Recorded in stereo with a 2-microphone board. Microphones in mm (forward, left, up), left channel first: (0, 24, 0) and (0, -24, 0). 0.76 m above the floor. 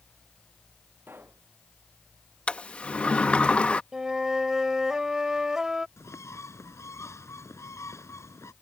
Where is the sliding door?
25° left (ahead or behind).